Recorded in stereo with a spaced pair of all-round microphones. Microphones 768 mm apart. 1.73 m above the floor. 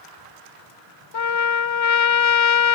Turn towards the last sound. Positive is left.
turn(degrees=45)  # may be behind; listen again after turning